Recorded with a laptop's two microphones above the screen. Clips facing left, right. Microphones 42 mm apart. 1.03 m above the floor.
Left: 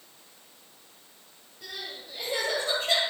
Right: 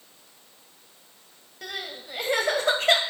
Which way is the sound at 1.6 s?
70° right (ahead or behind).